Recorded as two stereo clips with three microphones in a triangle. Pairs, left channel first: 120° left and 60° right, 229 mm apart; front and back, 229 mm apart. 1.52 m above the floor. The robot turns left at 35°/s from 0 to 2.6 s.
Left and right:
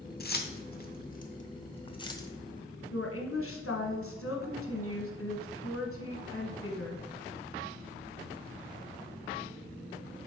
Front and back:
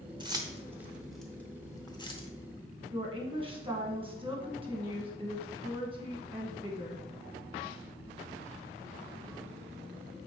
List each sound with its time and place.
0.2 s keys jangling: 120° left, 0.5 m; by 2.3 s 50° left, 0.5 m
2.9 s a woman speaking: 115° left, 1.0 m